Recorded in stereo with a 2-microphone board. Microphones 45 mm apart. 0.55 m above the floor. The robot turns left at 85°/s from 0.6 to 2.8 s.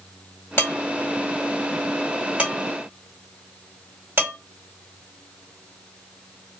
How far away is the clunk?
I don't hear a clunk.